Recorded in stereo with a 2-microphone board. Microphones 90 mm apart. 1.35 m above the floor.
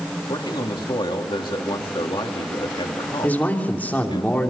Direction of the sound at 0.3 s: 65° left (ahead or behind).